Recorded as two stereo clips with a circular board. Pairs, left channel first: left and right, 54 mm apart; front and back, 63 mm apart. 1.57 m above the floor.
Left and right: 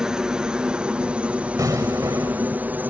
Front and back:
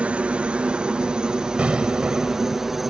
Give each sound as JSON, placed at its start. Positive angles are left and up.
{"t": 0.0, "sound": "a helicopter", "azimuth_deg": -145}
{"t": 1.6, "sound": "an explosion", "azimuth_deg": -105}